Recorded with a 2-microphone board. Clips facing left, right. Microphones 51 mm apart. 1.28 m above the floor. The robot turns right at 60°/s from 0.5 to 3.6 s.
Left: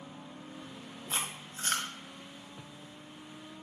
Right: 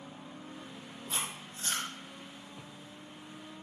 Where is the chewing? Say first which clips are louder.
Left 1 dB; 30° left (ahead or behind), 1.2 m; by 1.9 s 75° left (ahead or behind), 1.2 m.